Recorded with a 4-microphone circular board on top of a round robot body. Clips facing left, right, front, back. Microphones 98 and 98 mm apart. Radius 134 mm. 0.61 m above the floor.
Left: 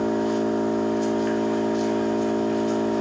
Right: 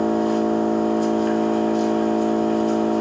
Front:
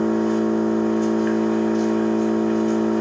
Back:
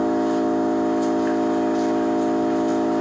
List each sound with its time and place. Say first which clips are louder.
0.0 s an engine running: right 3 dB, even; 105° right, 0.7 m